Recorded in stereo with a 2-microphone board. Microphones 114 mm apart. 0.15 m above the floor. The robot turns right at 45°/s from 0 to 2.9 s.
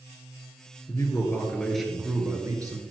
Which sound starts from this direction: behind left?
A man speaking, at 0.9 s.